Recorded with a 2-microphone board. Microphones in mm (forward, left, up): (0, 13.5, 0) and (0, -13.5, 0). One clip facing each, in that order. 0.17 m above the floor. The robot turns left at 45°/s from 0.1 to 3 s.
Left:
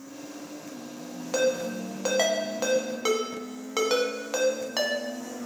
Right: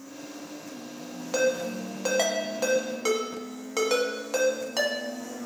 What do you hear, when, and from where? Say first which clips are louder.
1.3 s a ringtone: even; 5° right (ahead or behind), 0.8 m; by 5.5 s 15° left (ahead or behind), 0.8 m